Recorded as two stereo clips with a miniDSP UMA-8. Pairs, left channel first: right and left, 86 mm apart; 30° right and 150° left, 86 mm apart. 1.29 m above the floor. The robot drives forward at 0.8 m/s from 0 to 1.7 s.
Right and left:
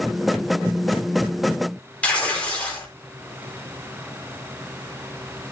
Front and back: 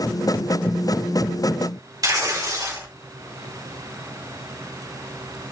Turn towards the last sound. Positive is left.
turn(degrees=-165)